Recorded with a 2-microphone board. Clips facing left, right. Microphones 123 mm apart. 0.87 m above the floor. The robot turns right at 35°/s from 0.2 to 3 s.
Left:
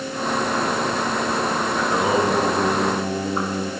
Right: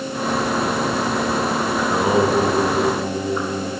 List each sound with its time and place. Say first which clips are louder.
1.8 s singing: right 3 dB; 10° right, 2.5 m; by 3.7 s 30° left, 2.5 m